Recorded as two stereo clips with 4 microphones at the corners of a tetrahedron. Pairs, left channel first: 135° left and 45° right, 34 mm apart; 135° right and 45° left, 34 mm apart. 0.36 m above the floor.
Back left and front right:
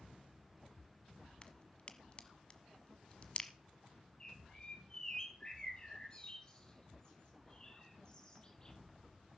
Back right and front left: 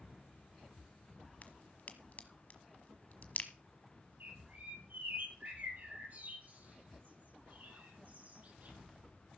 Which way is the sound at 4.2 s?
70° left.